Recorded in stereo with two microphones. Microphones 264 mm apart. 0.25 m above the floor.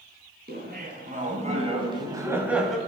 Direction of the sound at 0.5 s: 35° right (ahead or behind).